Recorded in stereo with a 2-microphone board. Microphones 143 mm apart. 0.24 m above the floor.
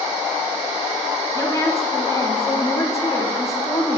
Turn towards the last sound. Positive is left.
turn(degrees=25)  # may be behind; listen again after turning